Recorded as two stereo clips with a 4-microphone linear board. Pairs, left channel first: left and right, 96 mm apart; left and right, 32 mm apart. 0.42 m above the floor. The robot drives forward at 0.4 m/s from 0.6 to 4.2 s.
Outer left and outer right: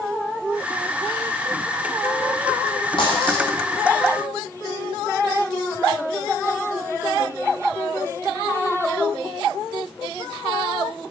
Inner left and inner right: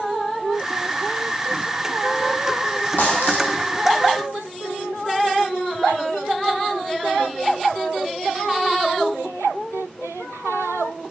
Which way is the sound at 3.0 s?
60° left (ahead or behind).